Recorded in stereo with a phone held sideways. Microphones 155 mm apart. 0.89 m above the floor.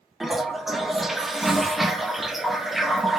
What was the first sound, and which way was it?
A toilet flushing, centre (ahead or behind).